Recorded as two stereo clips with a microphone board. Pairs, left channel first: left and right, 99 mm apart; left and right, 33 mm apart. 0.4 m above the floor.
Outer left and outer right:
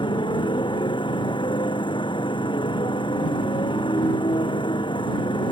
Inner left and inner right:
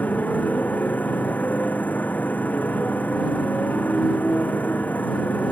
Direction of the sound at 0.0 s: 50° left (ahead or behind).